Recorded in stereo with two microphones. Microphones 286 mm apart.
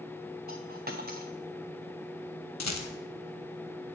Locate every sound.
0.5 s a dropped coin: 30° right (ahead or behind), 1.3 m
2.6 s a rattle: 65° left (ahead or behind), 1.0 m